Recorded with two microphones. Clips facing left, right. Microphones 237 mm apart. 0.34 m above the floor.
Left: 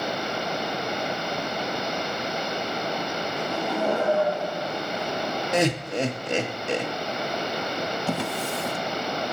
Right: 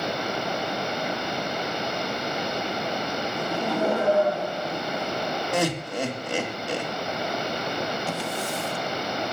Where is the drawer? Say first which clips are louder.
Left 2 dB; 65° left (ahead or behind), 0.6 m.